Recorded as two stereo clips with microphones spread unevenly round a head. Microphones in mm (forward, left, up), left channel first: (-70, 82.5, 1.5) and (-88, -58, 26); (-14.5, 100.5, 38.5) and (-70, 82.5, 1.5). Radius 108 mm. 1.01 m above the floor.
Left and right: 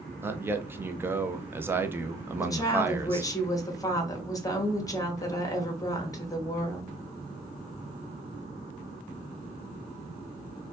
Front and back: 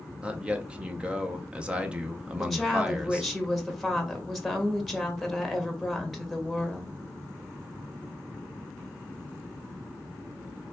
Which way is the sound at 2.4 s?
135° left.